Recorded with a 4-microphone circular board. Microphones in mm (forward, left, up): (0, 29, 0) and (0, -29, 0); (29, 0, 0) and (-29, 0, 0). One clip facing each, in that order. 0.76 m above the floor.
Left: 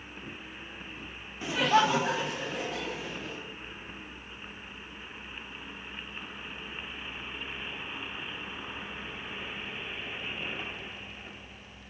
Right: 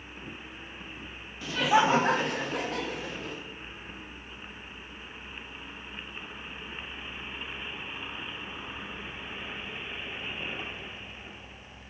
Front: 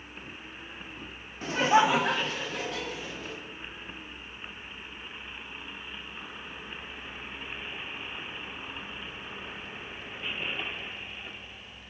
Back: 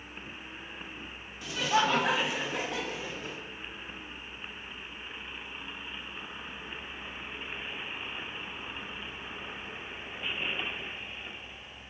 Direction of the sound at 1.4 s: 30° left.